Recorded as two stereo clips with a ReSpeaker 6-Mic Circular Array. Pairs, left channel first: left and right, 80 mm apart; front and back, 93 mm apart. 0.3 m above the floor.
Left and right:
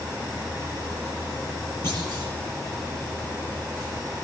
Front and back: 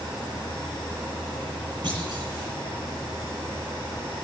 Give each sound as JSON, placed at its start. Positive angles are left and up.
{"t": 1.8, "sound": "a clunk", "azimuth_deg": 145, "distance_m": 9.0}